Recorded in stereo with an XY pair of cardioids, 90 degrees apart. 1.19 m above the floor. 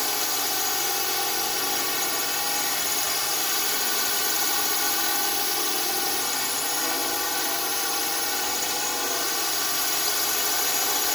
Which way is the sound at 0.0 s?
15° left.